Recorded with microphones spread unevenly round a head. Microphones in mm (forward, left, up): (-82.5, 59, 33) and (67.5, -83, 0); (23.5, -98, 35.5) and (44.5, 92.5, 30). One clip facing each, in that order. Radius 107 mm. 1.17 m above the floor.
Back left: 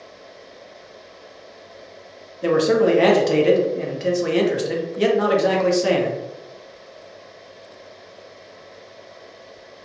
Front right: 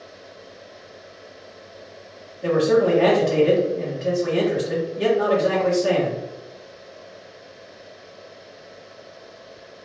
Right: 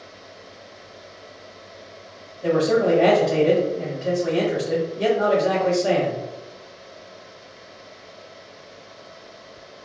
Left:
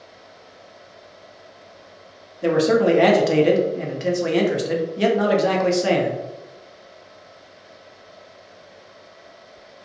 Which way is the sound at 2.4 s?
100° left.